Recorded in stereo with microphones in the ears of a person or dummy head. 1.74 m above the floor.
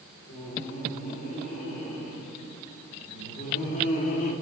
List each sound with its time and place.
0.3 s laughter: 50° left (ahead or behind), 5.5 m; by 4.3 s 45° left (ahead or behind), 1.8 m